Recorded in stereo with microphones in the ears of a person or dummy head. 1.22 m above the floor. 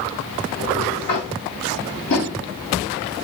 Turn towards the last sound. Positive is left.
turn(degrees=60)  # may be behind; listen again after turning